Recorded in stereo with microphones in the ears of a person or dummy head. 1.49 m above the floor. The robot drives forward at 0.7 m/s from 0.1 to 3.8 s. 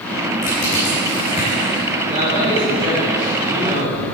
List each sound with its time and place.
0.4 s crushing: 45° left (ahead or behind), 3 m; by 1.9 s 35° left (ahead or behind), 3.5 m
2.1 s a man speaking: 30° right (ahead or behind), 3 m; by 4.0 s 20° right (ahead or behind), 4 m